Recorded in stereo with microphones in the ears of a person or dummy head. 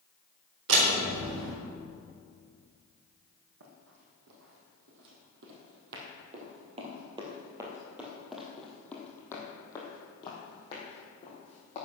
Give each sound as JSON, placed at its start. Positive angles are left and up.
{"t": 0.7, "sound": "a door slam", "side_deg": -65, "distance_m": 4.5}
{"t": 3.6, "sound": "running footsteps", "side_deg": -70, "distance_m": 4.0}